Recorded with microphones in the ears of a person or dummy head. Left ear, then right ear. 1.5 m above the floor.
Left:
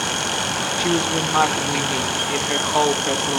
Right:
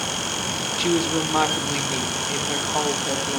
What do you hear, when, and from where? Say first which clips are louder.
0.8 s a woman speaking: even; 10° right (ahead or behind), 1.8 m; by 3.4 s 45° left (ahead or behind), 1.8 m